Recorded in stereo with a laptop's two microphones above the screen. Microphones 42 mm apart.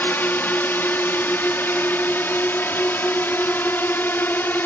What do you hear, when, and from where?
0.0 s a drone: 60° left (ahead or behind)